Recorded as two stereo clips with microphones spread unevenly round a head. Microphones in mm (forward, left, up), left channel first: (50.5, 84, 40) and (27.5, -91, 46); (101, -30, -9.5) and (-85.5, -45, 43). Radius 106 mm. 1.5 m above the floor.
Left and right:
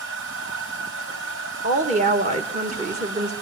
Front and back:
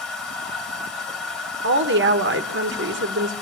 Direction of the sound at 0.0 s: 90° right.